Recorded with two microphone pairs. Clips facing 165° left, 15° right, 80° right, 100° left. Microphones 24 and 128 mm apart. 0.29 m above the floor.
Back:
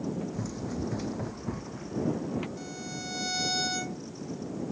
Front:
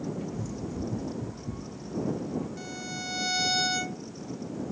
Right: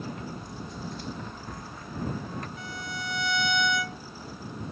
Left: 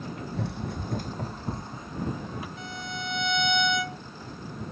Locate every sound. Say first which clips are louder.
0.3 s running footsteps: even, left 6 dB; 100° left; by 2.5 s straight behind
2.6 s a violin: front 2 dB, left 1 dB; 50° left